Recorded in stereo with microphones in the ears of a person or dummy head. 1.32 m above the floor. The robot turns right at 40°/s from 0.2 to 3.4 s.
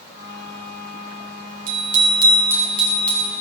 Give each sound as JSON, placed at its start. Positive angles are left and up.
{"t": 1.7, "sound": "a bicycle bell", "azimuth_deg": -45, "distance_m": 5.0}